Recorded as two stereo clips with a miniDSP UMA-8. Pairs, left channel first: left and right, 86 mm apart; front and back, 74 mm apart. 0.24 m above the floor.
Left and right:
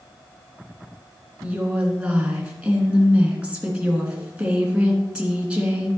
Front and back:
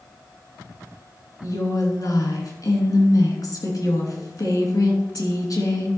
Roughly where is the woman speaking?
Ahead.